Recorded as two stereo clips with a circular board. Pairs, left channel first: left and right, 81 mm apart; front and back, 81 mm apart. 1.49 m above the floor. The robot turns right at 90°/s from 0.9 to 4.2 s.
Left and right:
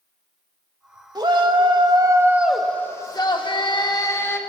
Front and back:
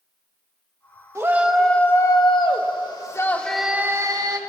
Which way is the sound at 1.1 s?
125° right.